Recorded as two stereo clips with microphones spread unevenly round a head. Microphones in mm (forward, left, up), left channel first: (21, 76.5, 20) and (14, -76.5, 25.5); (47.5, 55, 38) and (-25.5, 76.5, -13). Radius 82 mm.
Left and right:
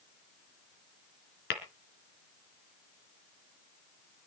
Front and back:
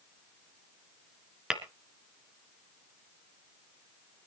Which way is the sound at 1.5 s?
70° left.